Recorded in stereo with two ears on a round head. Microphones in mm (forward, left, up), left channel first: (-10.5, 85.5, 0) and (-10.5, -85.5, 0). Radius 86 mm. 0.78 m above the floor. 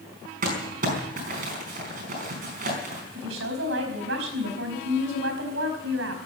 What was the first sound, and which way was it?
Crumpling, 40° right (ahead or behind).